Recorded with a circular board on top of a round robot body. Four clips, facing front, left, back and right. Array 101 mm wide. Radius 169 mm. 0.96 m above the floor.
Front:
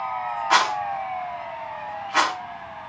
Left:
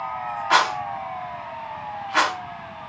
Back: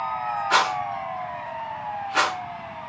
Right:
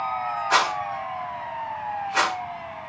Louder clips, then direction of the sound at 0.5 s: Left 3 dB, front 2 dB; 55° left.